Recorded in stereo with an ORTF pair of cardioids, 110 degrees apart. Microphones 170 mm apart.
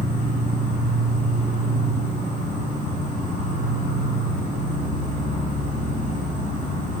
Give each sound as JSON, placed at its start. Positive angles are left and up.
{"t": 0.0, "sound": "an insect", "azimuth_deg": 55, "distance_m": 6.0}